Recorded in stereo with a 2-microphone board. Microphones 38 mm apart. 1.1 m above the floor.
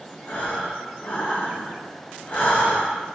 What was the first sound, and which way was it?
Breathing, 40° left (ahead or behind).